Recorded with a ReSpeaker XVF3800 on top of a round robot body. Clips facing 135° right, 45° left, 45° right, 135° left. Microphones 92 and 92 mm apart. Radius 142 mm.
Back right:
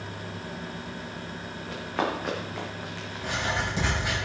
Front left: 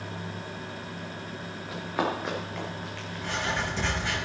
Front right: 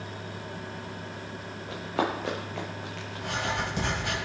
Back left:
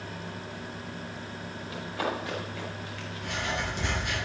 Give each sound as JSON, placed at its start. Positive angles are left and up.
{"t": 1.7, "sound": "running footsteps", "azimuth_deg": -35, "distance_m": 4.0}
{"t": 3.2, "sound": "writing", "azimuth_deg": -60, "distance_m": 6.0}